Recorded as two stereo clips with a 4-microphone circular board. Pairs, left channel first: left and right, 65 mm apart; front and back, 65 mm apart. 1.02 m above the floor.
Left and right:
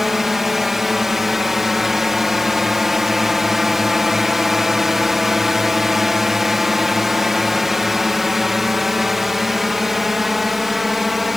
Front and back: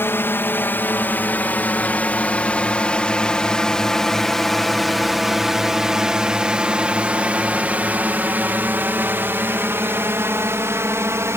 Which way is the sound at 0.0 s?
5° right.